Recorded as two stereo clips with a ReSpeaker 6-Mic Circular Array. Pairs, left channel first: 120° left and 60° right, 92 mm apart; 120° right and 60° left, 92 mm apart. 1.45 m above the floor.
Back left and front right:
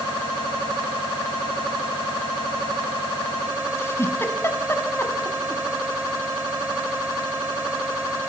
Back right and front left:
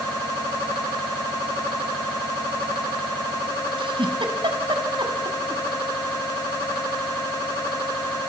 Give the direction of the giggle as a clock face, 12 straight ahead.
10 o'clock.